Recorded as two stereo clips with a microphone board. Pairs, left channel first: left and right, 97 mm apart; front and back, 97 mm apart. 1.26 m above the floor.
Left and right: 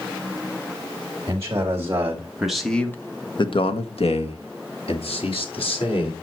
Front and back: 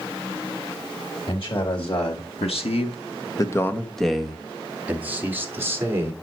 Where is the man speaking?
30° right, 2.5 m; by 6.1 s 115° left, 3.5 m.